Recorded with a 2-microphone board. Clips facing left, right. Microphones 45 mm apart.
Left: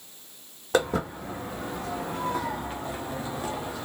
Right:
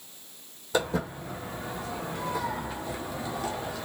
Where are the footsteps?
55° left (ahead or behind), 1.7 m; by 3.9 s 15° left (ahead or behind), 1.3 m.